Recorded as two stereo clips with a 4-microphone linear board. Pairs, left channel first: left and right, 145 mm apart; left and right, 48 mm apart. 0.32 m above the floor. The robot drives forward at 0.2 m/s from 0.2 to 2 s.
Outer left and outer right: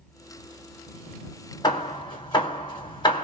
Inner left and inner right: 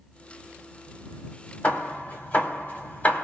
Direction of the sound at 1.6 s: 30° left (ahead or behind).